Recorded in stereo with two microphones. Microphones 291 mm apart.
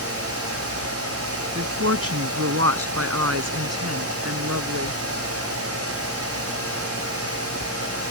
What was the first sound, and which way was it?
A woman speaking, 55° right (ahead or behind).